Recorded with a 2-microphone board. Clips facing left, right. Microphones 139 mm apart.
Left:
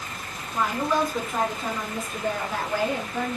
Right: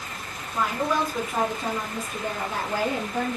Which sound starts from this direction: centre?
A woman speaking, at 0.5 s.